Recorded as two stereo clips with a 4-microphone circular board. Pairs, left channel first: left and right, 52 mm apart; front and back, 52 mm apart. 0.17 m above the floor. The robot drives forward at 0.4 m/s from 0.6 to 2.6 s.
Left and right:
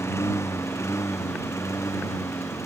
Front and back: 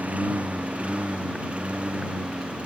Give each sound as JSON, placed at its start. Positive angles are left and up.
{"t": 0.0, "sound": "a lawn mower", "azimuth_deg": 120}